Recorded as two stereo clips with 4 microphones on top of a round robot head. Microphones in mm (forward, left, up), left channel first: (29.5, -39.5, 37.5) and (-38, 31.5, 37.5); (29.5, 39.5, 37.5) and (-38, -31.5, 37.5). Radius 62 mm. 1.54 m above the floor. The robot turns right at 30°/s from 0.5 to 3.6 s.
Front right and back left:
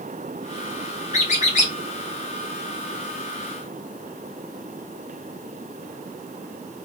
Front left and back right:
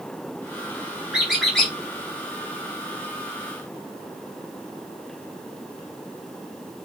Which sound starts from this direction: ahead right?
A squeak, at 1.1 s.